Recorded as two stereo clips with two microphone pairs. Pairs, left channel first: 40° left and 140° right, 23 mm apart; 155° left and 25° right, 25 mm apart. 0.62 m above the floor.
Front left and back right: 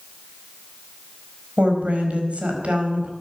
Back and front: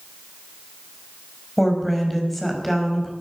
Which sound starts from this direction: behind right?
A woman speaking, at 1.6 s.